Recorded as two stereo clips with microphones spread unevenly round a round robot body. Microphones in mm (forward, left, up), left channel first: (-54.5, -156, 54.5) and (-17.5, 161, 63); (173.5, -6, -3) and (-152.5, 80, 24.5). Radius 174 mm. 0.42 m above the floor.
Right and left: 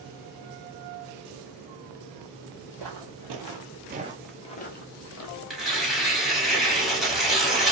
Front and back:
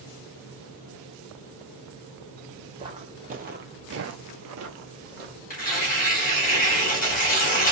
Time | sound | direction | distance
2.8 | footsteps | 90° left | 1.1 m
5.5 | tearing paper | 10° right | 1.5 m